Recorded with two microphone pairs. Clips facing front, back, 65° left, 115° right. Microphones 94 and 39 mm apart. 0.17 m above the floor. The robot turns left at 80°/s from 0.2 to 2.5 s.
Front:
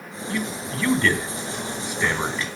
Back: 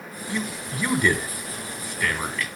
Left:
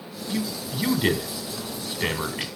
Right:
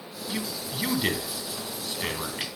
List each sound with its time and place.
0.3 s a man speaking: 165° right, 1.1 m; by 2.5 s 20° left, 1.1 m